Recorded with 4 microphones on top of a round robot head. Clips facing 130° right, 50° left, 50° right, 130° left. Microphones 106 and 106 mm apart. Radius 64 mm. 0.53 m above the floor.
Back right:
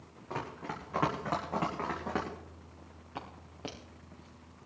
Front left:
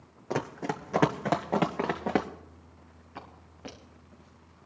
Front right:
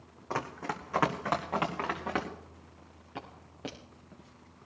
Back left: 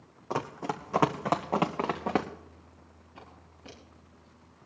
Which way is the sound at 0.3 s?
60° left.